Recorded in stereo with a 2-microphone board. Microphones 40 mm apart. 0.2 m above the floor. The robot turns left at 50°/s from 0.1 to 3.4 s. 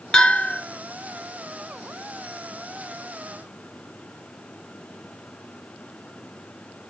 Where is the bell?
15° left (ahead or behind), 2 m; by 0.6 s 35° left (ahead or behind), 2 m.